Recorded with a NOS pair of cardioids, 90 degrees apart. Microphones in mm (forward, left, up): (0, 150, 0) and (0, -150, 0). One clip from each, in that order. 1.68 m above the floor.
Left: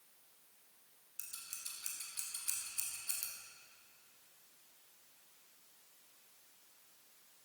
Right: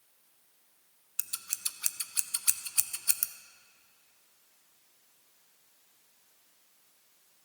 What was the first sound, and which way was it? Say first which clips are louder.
Scissors: right 10 dB; 65° right.